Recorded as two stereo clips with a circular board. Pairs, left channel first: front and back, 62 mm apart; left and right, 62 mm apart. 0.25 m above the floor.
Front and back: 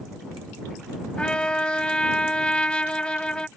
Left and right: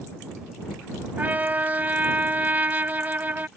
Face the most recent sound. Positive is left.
turn(degrees=-60)